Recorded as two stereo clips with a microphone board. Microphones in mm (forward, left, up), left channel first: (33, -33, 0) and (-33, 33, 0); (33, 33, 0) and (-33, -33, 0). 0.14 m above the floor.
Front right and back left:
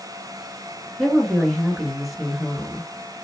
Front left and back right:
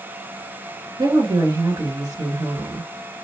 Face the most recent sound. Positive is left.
turn(degrees=-135)